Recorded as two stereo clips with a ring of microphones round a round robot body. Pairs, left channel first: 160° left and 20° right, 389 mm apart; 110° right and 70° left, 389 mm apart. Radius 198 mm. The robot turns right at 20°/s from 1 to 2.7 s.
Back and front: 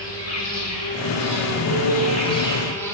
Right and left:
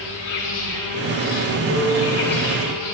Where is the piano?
150° left, 5.5 m; by 2.2 s 160° left, 5.5 m.